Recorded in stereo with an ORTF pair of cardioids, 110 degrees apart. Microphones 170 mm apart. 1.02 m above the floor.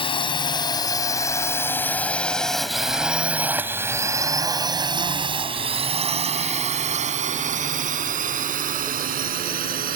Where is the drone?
30° left; by 10.0 s 60° right.